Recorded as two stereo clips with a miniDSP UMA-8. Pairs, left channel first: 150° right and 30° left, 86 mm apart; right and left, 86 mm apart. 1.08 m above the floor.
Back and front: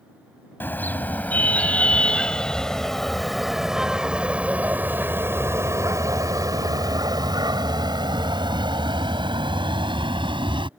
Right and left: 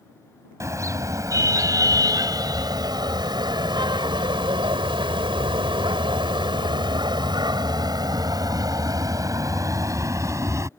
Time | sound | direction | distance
0.6 | a car horn | 145° left | ?